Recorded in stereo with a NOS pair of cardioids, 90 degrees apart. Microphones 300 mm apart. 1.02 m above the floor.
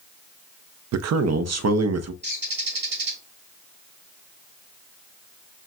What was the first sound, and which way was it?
A man speaking, 60° right.